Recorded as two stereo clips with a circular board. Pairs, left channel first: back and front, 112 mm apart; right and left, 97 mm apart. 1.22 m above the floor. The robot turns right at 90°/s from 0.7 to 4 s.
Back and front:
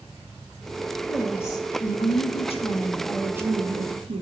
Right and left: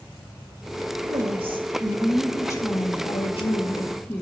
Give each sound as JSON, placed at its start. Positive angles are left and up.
{"t": 1.1, "sound": "a woman speaking", "azimuth_deg": 80, "distance_m": 1.8}